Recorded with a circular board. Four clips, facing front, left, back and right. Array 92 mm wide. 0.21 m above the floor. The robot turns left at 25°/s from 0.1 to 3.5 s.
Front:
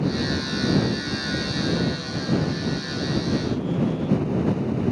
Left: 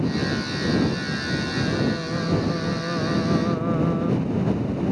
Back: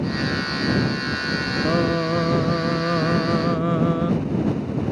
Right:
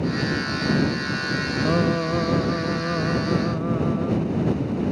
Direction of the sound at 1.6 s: 145° right.